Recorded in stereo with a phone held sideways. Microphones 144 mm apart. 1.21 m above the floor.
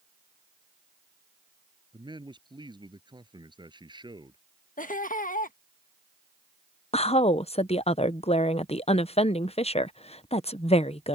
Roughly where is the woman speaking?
Left.